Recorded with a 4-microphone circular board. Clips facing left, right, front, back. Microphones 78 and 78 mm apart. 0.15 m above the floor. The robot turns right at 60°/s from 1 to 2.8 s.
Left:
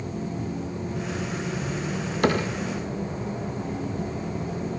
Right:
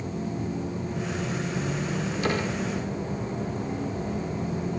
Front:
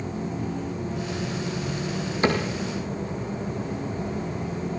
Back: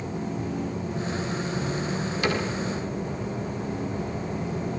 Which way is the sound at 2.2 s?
60° left.